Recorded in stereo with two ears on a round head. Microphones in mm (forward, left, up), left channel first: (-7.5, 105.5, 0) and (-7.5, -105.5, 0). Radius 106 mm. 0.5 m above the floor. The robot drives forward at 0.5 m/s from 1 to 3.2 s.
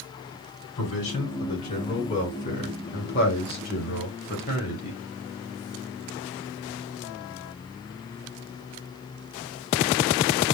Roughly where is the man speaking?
Left.